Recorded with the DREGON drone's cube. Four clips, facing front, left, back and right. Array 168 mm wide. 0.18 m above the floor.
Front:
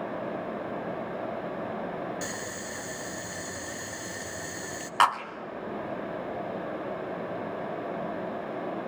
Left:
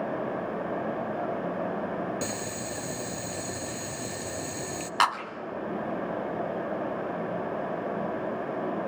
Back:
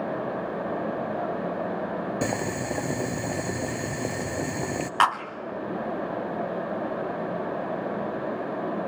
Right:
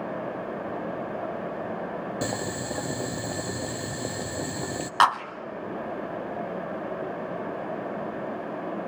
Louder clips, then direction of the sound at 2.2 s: Right 3 dB, back 9 dB; 155° right.